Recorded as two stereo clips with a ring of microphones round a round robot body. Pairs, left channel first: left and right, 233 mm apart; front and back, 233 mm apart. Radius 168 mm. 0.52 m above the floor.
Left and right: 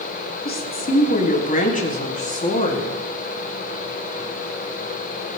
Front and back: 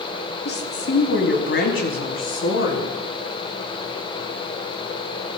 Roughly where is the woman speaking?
Ahead left.